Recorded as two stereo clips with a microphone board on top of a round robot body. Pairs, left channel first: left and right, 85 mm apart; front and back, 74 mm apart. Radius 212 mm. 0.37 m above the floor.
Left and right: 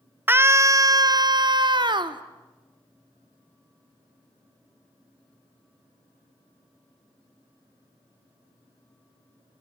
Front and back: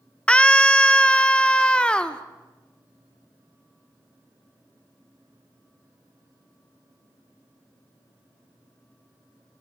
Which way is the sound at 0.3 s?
60° right.